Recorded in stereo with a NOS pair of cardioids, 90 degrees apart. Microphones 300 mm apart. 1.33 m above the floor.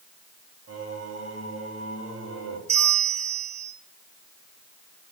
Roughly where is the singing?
Ahead right.